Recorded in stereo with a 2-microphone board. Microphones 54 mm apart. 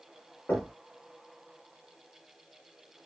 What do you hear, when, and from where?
0.5 s knocking: 35° left (ahead or behind), 0.9 m